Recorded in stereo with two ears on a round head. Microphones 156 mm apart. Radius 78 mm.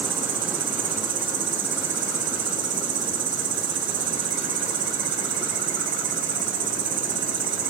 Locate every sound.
0.0 s an insect: 45° right (ahead or behind), 1.4 m